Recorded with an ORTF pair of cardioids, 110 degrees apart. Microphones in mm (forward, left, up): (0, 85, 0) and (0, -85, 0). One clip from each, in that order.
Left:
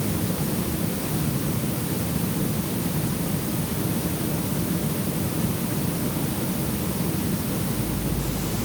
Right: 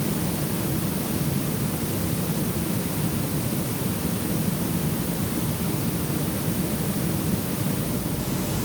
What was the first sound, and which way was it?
Only background noise.